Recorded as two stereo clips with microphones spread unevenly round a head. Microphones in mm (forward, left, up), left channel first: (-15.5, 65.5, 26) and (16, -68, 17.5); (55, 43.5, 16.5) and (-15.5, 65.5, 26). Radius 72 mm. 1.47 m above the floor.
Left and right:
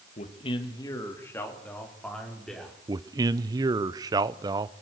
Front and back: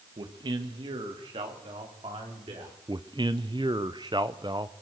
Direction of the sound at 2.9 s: 140° right.